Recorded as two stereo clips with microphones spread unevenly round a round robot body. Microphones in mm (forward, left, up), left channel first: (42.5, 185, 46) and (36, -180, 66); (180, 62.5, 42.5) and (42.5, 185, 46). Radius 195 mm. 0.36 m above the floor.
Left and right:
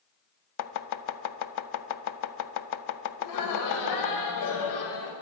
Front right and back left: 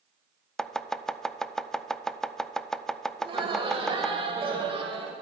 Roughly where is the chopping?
Ahead left.